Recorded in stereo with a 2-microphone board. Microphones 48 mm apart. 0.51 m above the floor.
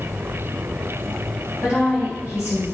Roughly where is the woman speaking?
Left.